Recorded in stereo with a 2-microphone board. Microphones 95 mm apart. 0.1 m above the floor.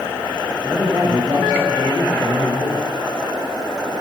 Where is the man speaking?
5° right (ahead or behind), 7.5 m.